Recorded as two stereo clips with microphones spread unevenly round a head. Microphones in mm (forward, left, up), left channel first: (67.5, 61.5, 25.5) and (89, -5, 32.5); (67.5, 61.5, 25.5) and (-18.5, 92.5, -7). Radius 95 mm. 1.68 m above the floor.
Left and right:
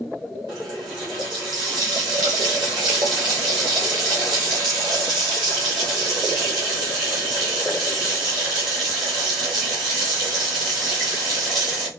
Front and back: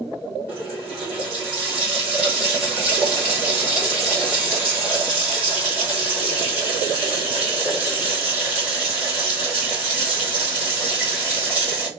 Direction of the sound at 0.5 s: 110° right.